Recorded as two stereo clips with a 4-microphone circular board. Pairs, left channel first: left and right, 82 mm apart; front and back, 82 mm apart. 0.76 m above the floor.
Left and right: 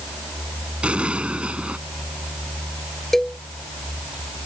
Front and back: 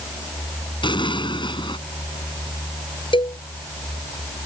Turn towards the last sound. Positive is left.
turn(degrees=5)